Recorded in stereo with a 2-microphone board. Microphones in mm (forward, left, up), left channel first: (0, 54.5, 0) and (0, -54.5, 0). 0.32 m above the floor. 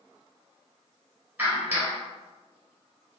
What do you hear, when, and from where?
1.4 s a clap: 15° right (ahead or behind), 1.3 m